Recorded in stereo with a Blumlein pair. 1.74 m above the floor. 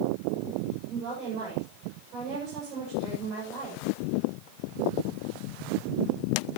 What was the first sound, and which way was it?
A woman speaking, 35° right.